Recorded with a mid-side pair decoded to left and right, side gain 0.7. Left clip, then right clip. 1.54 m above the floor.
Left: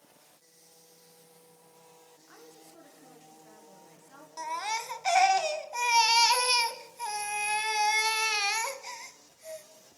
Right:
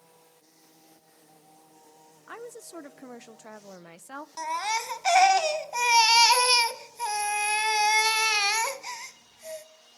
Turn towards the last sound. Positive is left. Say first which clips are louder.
# right 4 dB
turn(degrees=-20)